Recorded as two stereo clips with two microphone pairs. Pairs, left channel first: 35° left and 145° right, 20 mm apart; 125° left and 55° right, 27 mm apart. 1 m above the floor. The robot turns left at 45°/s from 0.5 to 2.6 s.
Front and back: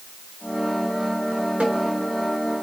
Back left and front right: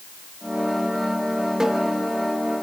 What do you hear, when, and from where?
1.6 s a snare drum: 130° right, 3.5 m; by 1.8 s 140° right, 3.5 m